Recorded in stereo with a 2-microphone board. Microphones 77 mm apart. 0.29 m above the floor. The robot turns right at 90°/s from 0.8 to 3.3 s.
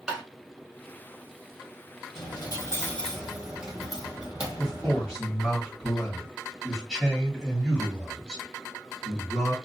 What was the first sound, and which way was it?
Tapping, 10° right (ahead or behind).